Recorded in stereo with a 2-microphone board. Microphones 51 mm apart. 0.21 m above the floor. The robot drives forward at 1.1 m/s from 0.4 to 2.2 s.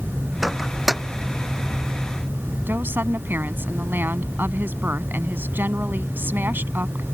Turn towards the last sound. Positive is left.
turn(degrees=-45)  # may be behind; listen again after turning